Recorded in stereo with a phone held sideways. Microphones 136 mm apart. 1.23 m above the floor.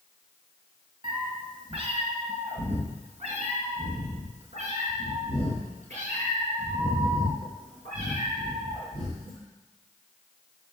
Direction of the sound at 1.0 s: 40° right (ahead or behind).